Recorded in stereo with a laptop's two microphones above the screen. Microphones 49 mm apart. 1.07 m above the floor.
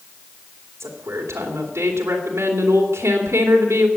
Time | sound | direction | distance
0.8 | a woman speaking | 85° right | 3 m